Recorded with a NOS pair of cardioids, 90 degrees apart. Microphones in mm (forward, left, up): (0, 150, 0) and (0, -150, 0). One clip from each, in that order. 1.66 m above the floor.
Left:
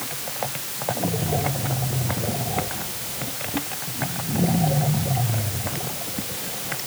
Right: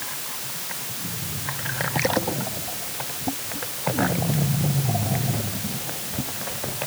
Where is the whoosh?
No whoosh in this recording.